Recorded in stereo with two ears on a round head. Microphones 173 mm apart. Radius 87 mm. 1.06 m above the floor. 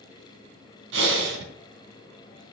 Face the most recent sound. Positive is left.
turn(degrees=-70)  # may be behind; listen again after turning